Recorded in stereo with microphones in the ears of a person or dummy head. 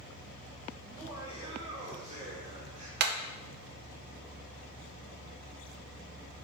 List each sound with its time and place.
0.8 s laughter: 10° right (ahead or behind), 2 m; by 2.9 s 35° right (ahead or behind), 3.5 m
3.0 s hammering: 65° right (ahead or behind), 0.8 m